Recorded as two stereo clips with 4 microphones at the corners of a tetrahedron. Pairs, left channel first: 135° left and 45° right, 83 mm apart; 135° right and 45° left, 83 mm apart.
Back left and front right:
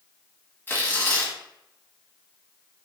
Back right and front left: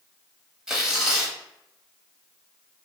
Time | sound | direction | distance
0.7 | tearing paper | 115° left | 1.1 m